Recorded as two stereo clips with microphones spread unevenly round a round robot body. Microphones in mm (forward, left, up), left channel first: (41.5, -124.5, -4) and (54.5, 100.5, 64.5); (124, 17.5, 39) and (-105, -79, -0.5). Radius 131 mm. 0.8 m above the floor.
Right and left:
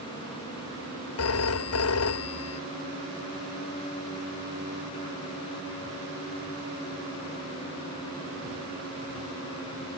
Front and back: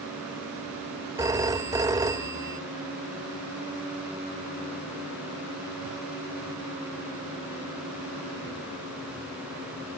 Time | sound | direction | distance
1.2 | a phone ringing | 80° right | ?